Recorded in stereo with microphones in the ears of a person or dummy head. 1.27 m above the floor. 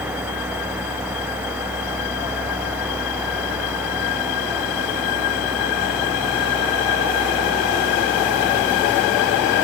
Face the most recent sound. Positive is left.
No sound to turn to.